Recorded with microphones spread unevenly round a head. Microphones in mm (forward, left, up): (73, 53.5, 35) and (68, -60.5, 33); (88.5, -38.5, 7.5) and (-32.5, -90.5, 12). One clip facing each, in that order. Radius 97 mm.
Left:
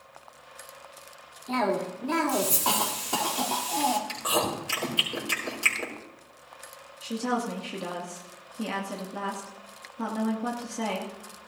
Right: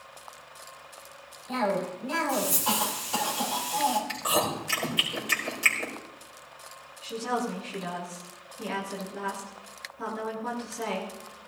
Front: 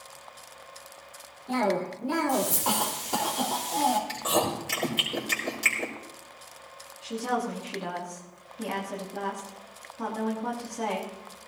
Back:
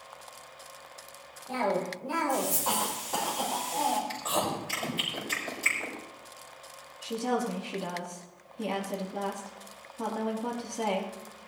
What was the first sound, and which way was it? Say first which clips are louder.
A cough: left 1 dB, front 3 dB; 75° left.